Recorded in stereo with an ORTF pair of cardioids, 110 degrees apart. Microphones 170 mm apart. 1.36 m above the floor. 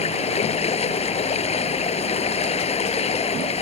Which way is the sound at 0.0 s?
35° left.